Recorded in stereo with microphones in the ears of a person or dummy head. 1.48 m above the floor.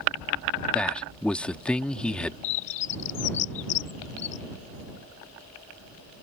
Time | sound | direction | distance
0.7 | a man speaking | 10° left (ahead or behind) | ?
2.4 | a bird | 40° left (ahead or behind) | ?